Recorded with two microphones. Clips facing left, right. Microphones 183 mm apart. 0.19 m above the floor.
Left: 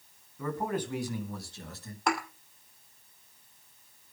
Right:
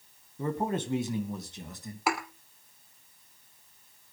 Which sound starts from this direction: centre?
A thud, at 2.1 s.